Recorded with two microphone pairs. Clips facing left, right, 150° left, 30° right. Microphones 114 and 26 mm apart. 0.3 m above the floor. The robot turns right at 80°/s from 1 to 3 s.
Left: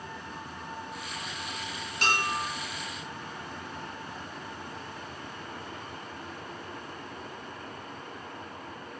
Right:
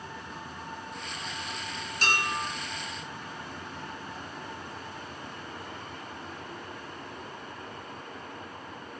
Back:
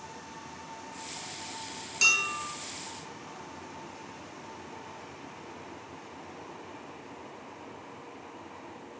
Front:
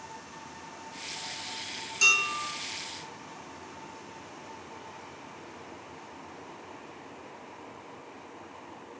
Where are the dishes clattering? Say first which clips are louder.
Left 1 dB, front 1 dB; 95° left, 1.0 m; by 2.5 s 130° left, 1.0 m.